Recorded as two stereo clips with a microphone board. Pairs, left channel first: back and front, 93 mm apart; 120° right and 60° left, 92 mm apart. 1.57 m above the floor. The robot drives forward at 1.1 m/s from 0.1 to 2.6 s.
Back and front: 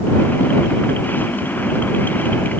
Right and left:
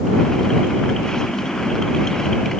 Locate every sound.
Only background noise.